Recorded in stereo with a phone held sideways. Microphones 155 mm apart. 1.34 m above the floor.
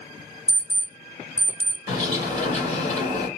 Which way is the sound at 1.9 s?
50° left (ahead or behind).